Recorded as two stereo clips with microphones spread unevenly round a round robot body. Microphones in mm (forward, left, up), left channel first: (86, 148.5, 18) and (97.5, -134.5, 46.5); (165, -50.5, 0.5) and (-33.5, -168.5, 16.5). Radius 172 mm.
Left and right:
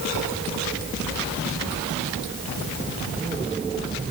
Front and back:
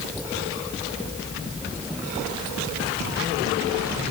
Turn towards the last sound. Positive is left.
No sound to turn to.